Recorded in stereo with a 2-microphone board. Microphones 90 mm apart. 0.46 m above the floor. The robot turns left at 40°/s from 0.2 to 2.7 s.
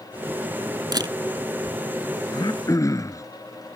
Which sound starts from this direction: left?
Throat clearing, at 2.3 s.